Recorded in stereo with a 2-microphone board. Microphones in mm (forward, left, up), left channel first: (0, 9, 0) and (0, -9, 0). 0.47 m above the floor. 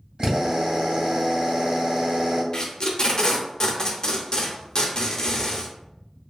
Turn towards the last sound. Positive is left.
turn(degrees=40)  # may be behind; listen again after turning